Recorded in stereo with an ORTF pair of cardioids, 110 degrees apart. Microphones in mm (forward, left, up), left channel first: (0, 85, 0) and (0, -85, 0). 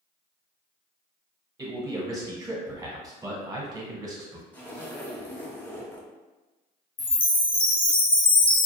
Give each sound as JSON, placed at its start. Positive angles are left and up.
{"t": 1.6, "sound": "a man speaking", "azimuth_deg": -20, "distance_m": 0.9}
{"t": 4.5, "sound": "a zipper", "azimuth_deg": 10, "distance_m": 0.6}
{"t": 7.0, "sound": "a chime", "azimuth_deg": 30, "distance_m": 0.6}